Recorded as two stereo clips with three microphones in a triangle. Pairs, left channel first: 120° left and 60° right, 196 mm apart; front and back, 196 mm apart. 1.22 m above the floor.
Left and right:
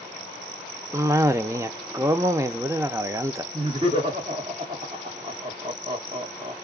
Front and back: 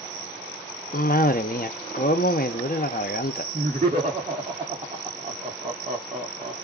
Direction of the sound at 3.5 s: 115° right.